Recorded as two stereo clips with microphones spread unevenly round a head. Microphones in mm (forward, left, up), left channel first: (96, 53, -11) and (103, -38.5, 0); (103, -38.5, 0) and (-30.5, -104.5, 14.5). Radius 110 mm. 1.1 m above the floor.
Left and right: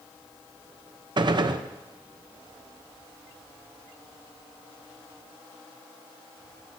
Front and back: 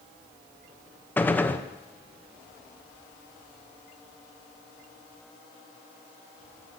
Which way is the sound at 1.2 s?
50° right.